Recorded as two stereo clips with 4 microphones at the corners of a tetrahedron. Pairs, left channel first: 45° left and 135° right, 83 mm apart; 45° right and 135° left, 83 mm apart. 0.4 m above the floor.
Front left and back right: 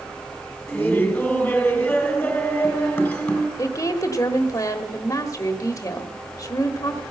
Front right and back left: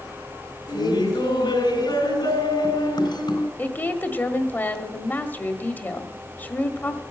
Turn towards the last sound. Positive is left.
turn(degrees=15)